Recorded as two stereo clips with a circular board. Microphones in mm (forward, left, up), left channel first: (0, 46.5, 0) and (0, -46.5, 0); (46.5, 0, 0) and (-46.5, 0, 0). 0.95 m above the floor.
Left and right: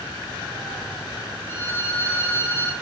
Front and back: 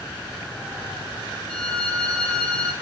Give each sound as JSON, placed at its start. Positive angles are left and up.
{"t": 1.5, "sound": "a violin", "azimuth_deg": 60, "distance_m": 0.6}